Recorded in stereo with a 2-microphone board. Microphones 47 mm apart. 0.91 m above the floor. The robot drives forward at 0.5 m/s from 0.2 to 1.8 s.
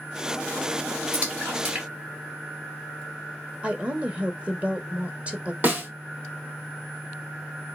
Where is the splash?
40° right (ahead or behind), 2 m; by 3.0 s 50° right (ahead or behind), 1.9 m.